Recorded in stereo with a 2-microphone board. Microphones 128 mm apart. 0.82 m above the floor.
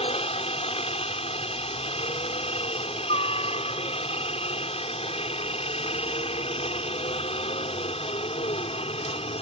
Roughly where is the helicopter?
Left.